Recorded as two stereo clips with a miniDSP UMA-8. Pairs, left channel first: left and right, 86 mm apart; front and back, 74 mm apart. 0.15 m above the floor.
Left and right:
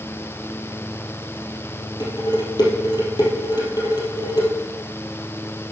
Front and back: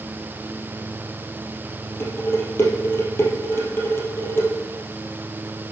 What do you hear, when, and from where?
2.0 s dishes clattering: 55° left, 2.5 m